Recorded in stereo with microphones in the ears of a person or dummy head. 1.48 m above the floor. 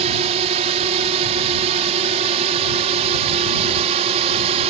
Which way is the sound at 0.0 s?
30° right (ahead or behind).